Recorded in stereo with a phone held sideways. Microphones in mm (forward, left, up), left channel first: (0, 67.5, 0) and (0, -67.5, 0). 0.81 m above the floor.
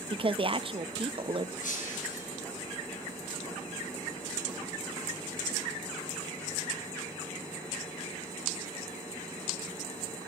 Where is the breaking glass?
80° left, 8.5 m.